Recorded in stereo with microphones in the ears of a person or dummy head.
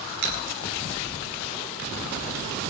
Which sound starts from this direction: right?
Scissors, at 0.2 s.